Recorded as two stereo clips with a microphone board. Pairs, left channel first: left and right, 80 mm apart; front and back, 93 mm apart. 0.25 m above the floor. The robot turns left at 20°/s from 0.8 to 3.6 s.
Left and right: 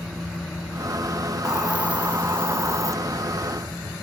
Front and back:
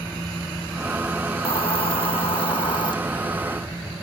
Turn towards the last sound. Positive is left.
turn(degrees=-50)